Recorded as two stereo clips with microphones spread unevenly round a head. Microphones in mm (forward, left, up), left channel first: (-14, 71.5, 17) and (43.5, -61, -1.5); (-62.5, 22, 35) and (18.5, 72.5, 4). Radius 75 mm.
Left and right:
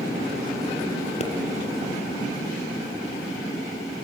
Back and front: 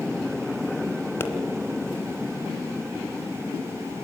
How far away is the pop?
About 2.5 m.